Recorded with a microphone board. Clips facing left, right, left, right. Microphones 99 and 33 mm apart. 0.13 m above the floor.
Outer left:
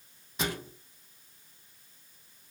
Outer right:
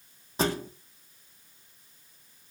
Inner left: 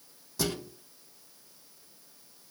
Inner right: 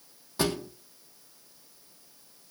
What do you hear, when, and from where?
0.4 s a thud: 35° right (ahead or behind), 3.5 m